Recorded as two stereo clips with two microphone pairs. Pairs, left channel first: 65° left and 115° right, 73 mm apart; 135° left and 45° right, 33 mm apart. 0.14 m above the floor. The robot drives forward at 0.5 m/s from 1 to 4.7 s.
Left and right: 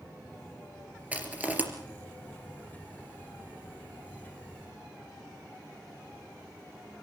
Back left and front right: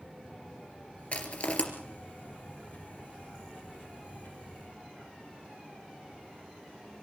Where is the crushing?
175° left, 3 m.